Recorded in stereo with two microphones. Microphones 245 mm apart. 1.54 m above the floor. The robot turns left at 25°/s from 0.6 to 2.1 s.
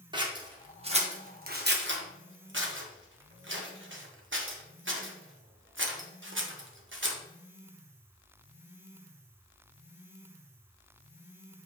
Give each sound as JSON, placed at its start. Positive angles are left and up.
{"t": 0.1, "sound": "scissors", "side_deg": -20, "distance_m": 1.2}